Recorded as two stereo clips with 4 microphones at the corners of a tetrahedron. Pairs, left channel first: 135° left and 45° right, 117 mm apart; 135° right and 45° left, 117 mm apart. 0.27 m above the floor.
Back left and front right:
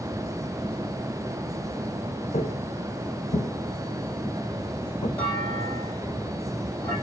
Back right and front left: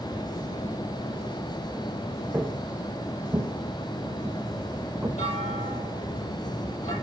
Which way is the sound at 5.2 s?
150° right.